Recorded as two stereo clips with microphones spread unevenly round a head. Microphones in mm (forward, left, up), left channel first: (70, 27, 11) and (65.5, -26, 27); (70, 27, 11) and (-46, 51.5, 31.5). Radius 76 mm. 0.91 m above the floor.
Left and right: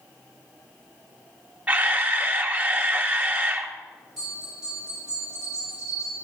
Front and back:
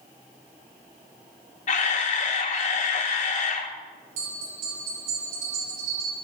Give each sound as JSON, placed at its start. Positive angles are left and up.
{"t": 1.7, "sound": "a camera shutter", "azimuth_deg": -25, "distance_m": 1.2}
{"t": 4.2, "sound": "a bell", "azimuth_deg": 175, "distance_m": 4.0}